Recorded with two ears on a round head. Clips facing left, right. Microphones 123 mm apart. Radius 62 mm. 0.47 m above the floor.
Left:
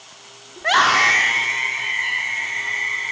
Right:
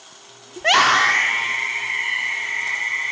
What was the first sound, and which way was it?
A scream, 30° right (ahead or behind).